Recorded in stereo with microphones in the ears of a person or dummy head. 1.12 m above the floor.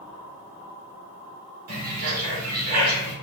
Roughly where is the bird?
Right.